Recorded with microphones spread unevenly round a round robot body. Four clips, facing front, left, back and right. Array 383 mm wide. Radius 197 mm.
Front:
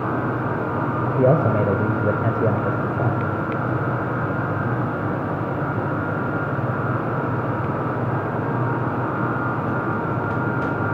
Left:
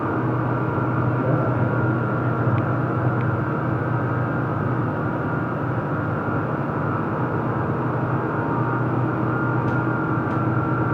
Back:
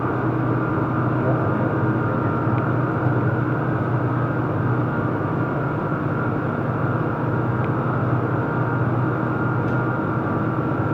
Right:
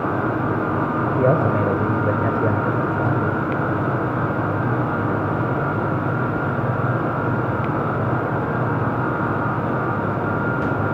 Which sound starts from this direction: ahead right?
A man speaking, at 1.2 s.